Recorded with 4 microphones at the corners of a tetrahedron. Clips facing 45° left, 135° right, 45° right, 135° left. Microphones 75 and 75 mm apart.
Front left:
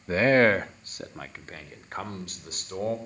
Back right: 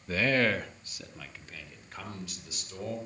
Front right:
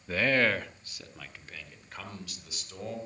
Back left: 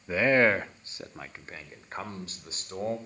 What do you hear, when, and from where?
0.1 s a man speaking: 70° left, 0.6 m; by 3.0 s 85° left, 3.5 m